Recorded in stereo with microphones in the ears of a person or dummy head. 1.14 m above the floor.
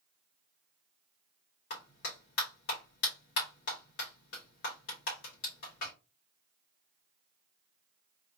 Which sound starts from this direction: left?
A clap, at 1.7 s.